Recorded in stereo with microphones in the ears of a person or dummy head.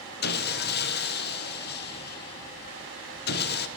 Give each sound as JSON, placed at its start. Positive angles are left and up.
{"t": 0.2, "sound": "sawing", "side_deg": 50, "distance_m": 0.9}